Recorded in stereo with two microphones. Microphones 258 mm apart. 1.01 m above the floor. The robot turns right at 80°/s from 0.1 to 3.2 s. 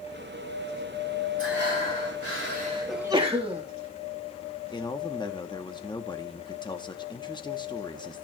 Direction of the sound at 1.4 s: 130° right.